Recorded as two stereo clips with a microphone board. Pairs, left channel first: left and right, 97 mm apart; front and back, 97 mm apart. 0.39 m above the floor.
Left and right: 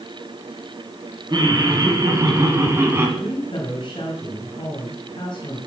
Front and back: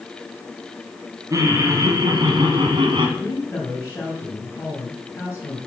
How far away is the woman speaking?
About 3 m.